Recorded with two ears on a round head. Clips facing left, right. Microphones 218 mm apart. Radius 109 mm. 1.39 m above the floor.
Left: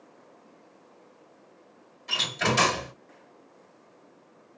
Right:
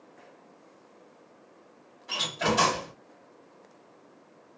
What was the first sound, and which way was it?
A door slam, 40° left (ahead or behind).